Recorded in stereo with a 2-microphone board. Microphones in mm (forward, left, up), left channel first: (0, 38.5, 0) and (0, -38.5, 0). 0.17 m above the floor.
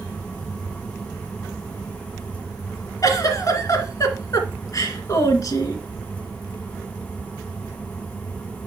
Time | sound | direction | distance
3.0 | a giggle | 45° left (ahead or behind) | 2 m